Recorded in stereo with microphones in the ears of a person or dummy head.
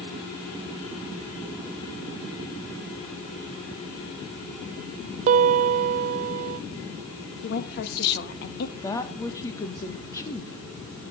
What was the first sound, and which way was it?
A piano, 45° right (ahead or behind).